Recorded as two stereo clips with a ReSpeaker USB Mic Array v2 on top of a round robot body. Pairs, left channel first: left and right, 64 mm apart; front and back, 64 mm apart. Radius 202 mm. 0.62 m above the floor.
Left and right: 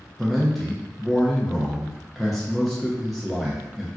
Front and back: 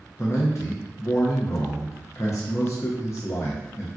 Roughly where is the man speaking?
Ahead.